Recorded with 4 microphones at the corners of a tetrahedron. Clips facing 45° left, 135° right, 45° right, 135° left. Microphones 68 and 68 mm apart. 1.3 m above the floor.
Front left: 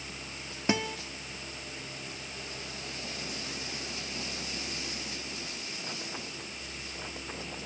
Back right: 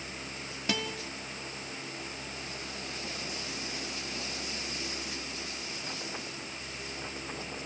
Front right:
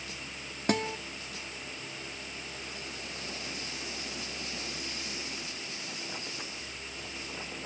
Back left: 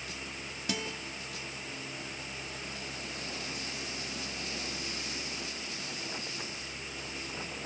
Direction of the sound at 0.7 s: 15° right.